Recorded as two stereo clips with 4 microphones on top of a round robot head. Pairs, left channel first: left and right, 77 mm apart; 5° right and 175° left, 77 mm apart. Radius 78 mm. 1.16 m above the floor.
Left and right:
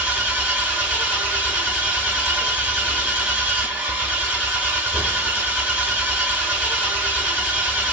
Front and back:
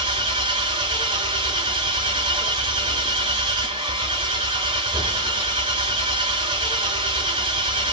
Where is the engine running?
160° right, 1.1 m.